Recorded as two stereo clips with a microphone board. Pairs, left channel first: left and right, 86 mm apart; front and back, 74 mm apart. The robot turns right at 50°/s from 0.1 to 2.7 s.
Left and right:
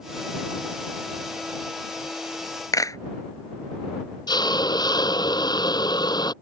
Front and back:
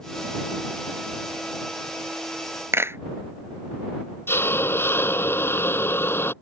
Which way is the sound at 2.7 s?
130° left.